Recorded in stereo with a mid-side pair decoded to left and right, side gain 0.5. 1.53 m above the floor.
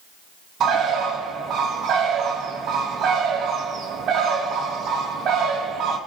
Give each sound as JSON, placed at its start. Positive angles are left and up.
{"t": 0.6, "sound": "a bird", "azimuth_deg": -60, "distance_m": 2.5}